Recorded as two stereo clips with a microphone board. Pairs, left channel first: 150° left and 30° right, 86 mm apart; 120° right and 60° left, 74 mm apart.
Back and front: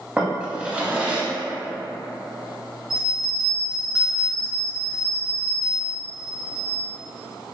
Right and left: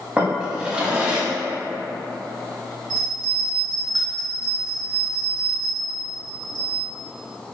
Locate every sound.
0.2 s a drawer: 15° left, 0.5 m
2.9 s a bell: 100° left, 0.8 m